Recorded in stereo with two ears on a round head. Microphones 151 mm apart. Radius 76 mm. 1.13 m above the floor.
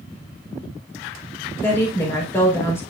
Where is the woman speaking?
15° left (ahead or behind), 4.5 m.